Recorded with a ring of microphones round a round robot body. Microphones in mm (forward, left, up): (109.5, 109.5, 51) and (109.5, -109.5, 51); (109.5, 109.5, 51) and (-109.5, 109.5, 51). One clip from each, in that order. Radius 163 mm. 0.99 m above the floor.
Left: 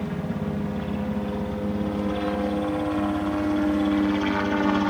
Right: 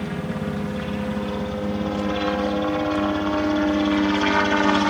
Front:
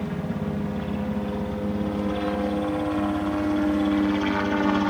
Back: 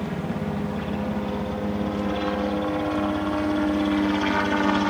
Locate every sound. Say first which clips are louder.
0.0 s a helicopter: right 2 dB, back 1 dB; 110° right